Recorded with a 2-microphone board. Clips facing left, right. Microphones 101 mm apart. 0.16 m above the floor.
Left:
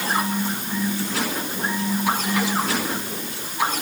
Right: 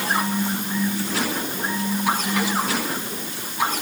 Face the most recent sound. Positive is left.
No sound to turn to.